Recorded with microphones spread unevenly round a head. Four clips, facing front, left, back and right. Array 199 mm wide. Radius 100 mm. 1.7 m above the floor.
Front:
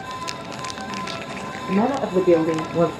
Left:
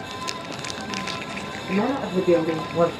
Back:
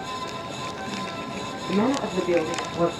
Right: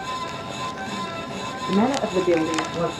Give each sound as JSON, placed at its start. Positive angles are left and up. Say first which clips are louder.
{"t": 1.7, "sound": "a woman speaking", "louder": "right 3 dB, front 3 dB", "azimuth_deg": -35, "distance_m": 1.7}